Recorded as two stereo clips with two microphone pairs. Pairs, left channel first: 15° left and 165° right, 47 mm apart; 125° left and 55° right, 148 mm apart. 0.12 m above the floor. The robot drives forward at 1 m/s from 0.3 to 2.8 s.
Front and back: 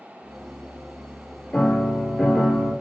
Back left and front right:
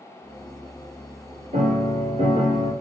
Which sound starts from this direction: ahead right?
A piano, at 1.5 s.